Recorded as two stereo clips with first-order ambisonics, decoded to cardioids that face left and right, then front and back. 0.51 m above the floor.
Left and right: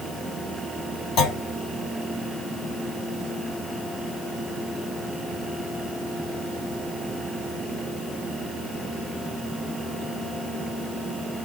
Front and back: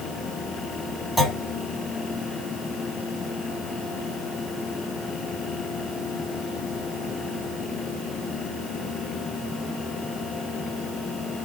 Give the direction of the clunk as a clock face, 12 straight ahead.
9 o'clock.